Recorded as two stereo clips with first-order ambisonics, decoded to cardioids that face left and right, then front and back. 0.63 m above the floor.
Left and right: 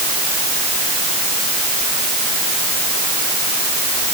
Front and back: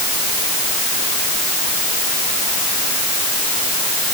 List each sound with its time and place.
Only background noise.